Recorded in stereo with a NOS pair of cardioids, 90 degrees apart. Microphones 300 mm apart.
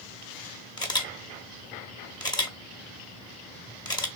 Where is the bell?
I don't hear a bell.